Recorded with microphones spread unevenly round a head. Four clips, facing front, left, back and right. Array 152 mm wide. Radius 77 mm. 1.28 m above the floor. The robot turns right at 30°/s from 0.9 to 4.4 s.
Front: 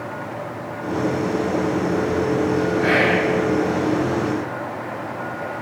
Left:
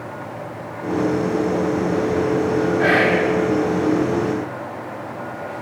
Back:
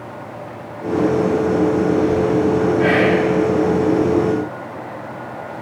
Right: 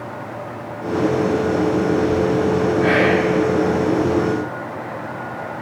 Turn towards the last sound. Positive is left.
turn(degrees=165)